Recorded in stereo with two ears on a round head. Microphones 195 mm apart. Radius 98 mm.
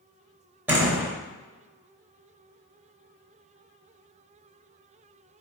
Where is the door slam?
10° right (ahead or behind), 3 m.